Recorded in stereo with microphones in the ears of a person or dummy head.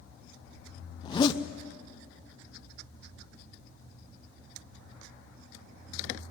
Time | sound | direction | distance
1.0 | a zipper | 25° left (ahead or behind) | 0.8 m